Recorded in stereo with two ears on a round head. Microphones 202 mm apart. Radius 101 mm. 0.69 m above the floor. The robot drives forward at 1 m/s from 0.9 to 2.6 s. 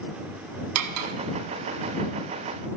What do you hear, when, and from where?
0.8 s cutlery clinking: 80° right, 1.0 m